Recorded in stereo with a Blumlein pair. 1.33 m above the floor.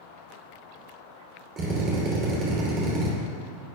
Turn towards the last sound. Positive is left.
turn(degrees=-25)